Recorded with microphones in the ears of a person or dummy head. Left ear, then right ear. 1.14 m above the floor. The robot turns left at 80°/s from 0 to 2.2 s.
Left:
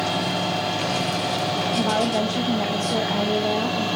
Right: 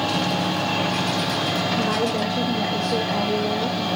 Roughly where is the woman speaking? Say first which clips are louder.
Left 1 dB; behind left.